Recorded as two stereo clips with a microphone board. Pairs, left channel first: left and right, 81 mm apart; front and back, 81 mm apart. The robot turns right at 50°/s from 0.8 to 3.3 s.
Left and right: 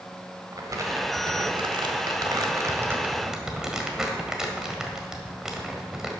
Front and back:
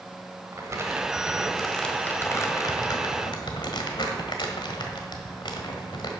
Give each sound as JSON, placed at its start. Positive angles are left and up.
{"t": 0.5, "sound": "crumpling", "azimuth_deg": -130, "distance_m": 1.5}